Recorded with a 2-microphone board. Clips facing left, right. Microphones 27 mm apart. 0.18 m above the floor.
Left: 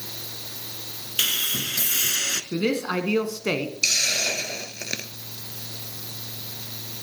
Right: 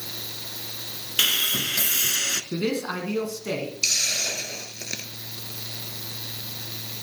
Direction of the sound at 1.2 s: 15° right (ahead or behind).